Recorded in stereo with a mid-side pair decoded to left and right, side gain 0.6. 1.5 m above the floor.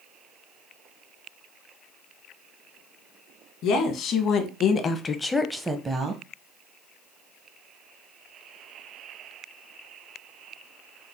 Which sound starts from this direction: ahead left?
A woman speaking, at 3.6 s.